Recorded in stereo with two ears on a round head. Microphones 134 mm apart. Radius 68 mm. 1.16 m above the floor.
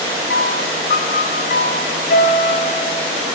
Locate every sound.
0.3 s a piano: 70° left (ahead or behind), 3 m